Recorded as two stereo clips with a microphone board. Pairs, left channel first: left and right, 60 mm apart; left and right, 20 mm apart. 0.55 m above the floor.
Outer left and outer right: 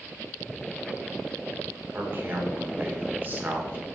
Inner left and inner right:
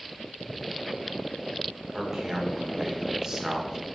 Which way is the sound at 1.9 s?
30° right (ahead or behind).